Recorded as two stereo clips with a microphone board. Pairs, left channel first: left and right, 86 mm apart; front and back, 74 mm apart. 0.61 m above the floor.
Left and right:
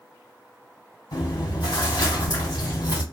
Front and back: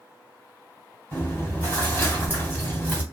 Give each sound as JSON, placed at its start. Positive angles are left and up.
{"t": 1.1, "sound": "chewing", "azimuth_deg": 60, "distance_m": 3.0}